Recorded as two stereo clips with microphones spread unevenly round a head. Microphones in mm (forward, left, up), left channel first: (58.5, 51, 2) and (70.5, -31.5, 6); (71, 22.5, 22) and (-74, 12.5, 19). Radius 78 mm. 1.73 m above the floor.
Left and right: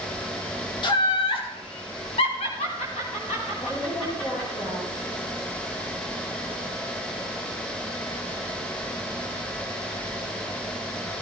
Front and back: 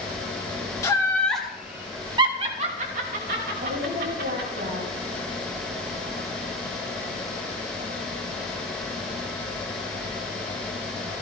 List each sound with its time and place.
0.8 s laughter: 75° left, 2.5 m; by 4.6 s 170° left, 5 m
3.6 s a woman speaking: 150° left, 4.5 m